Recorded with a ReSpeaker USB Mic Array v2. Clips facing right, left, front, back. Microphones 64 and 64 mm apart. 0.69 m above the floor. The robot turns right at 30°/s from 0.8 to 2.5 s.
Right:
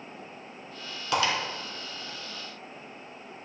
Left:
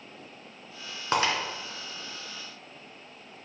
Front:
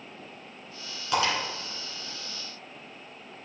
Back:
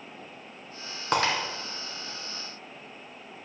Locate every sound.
1.1 s breaking glass: 140° left, 2 m; by 1.3 s 145° left, 2 m